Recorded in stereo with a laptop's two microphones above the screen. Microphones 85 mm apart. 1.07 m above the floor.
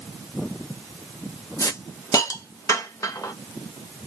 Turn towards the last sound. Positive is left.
turn(degrees=40)  # may be behind; listen again after turning